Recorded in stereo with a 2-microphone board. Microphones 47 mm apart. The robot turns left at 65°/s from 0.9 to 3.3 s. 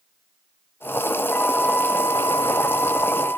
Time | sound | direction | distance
1.3 | a flute | 155° left | 6.5 m